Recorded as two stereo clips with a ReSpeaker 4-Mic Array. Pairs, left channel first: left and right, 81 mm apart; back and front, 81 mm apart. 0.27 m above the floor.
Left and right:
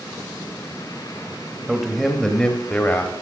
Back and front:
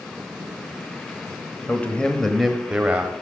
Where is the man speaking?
165° right, 0.9 m; by 3.1 s 45° left, 1.0 m.